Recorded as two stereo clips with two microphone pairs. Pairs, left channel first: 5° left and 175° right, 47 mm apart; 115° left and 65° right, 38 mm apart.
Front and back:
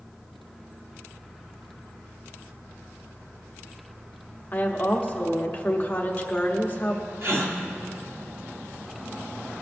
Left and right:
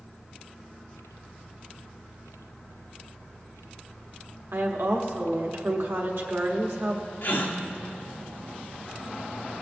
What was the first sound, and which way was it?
A woman speaking, 50° right.